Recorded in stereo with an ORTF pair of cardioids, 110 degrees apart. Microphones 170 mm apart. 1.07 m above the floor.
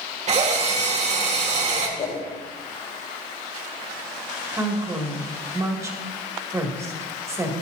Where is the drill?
45° right, 1.9 m.